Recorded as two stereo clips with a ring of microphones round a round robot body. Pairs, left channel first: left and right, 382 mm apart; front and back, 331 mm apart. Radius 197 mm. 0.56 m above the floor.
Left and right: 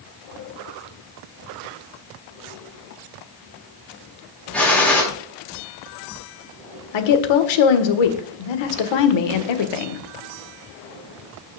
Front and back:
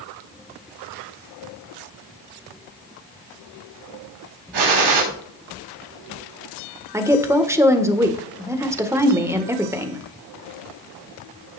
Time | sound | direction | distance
4.5 | a gunshot | 175° left | 4.5 m
6.9 | a woman speaking | 100° left | 1.7 m